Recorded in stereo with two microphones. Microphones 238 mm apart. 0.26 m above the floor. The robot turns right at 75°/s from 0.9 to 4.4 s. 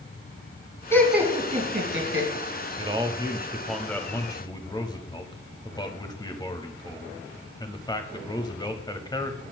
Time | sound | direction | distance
0.9 | laughter | 10° left (ahead or behind) | 2.0 m
2.8 | a man speaking | 20° right (ahead or behind) | 0.9 m